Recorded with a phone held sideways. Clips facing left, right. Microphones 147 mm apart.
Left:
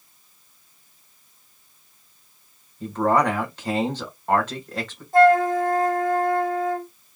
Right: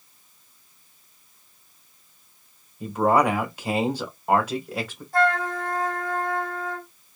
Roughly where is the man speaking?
Centre.